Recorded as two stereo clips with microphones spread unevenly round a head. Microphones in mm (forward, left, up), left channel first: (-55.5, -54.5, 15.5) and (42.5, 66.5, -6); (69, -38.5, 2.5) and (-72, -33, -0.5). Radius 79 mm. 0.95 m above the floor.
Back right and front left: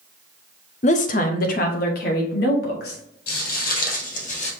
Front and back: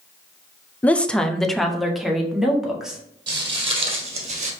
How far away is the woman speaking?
About 0.5 m.